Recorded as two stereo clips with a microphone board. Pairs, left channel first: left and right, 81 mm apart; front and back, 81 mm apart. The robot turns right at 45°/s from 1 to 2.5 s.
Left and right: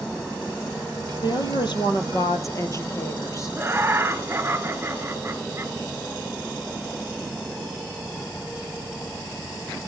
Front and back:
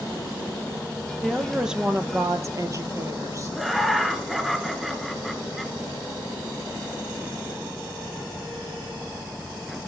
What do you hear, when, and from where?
1.2 s a woman speaking: 80° left, 2 m; by 3.6 s 135° left, 2 m
3.5 s laughter: 95° right, 1.8 m